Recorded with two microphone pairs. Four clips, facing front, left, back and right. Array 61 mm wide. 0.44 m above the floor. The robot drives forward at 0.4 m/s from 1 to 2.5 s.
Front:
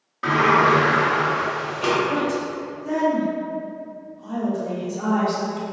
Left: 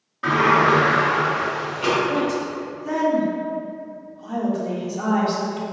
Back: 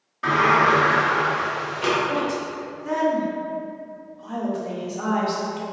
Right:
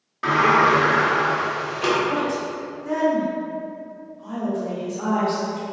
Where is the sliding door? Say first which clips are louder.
Even, front 1 dB; 60° right, 1.2 m; by 1.9 s 95° right, 1.2 m.